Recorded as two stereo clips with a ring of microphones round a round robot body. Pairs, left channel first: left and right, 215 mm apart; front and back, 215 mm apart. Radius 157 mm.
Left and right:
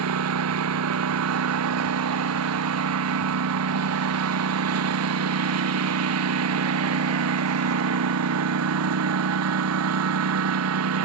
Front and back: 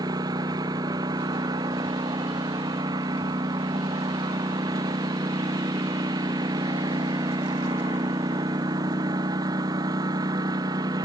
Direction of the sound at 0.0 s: 100° right.